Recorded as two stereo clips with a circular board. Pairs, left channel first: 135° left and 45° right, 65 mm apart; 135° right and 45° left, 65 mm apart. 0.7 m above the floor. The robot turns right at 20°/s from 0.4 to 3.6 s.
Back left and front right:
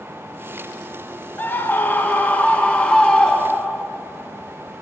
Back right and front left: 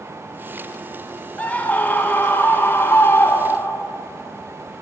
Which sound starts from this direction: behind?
A scream, at 1.4 s.